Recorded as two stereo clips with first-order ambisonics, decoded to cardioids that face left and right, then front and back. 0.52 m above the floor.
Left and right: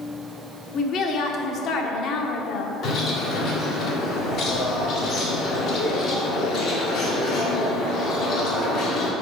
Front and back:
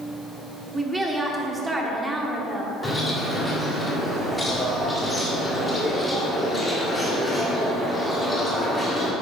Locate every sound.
0.7 s a woman speaking: 105° left, 0.9 m
2.8 s a bird: 75° left, 1.4 m